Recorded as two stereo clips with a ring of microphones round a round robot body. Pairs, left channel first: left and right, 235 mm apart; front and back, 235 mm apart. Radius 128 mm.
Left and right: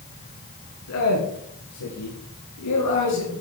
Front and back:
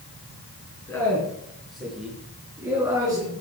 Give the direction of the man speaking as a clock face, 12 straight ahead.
9 o'clock.